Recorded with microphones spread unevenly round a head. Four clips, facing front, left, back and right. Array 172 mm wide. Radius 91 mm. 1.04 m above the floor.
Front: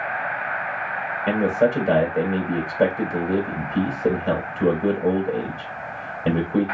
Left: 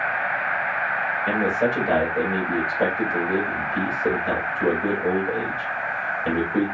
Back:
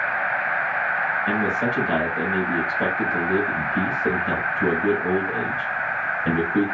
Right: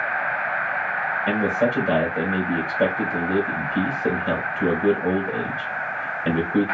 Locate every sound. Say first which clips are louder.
1.3 s a man speaking: right 1 dB, front 8 dB; 20° right, 3 m